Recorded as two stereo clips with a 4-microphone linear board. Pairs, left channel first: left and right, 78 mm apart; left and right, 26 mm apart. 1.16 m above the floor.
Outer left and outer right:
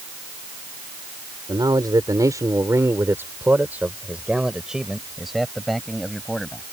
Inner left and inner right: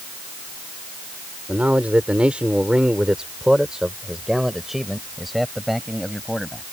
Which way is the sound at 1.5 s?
65° right (ahead or behind).